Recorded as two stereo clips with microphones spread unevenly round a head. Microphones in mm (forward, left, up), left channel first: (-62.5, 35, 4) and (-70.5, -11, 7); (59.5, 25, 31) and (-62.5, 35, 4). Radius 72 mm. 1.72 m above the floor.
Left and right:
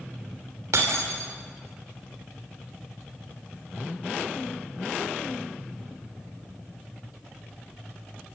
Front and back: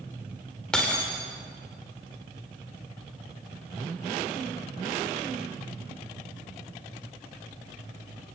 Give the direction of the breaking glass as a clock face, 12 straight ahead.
3 o'clock.